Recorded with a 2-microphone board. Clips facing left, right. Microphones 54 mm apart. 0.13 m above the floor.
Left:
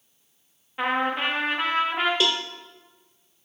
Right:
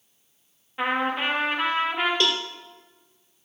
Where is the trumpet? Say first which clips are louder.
Even; centre (ahead or behind), 5.5 m.